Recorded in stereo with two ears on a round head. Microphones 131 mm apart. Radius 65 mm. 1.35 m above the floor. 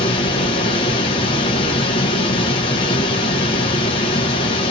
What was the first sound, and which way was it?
Running water, 35° left (ahead or behind).